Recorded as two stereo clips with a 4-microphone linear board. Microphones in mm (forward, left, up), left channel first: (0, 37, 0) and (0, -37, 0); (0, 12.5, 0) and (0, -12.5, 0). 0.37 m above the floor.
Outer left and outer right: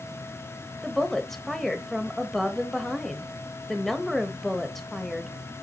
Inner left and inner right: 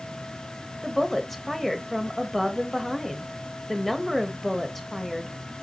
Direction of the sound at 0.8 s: 5° left (ahead or behind).